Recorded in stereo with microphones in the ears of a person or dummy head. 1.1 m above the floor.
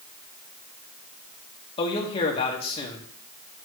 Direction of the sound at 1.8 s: 40° left (ahead or behind).